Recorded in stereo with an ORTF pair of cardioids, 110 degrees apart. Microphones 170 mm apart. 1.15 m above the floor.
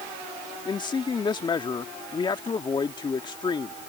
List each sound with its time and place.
0.7 s a man speaking: 25° left